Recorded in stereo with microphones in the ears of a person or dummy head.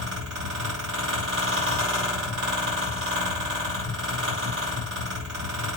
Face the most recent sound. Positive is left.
turn(degrees=-70)  # may be behind; listen again after turning